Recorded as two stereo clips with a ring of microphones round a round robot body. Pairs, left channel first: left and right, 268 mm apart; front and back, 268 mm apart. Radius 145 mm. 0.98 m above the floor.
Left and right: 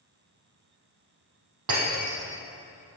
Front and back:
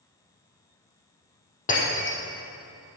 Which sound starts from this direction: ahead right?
Breaking glass, at 1.7 s.